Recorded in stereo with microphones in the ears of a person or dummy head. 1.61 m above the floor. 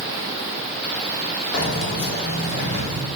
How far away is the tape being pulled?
No tape being pulled in this recording.